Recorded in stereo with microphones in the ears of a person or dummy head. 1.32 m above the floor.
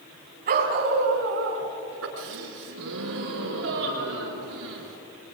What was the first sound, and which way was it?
A dog barking, 50° right (ahead or behind).